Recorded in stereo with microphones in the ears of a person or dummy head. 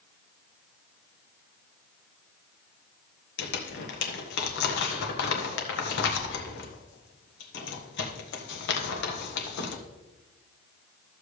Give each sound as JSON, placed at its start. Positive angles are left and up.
{"t": 3.4, "sound": "crumpling", "side_deg": 70, "distance_m": 1.5}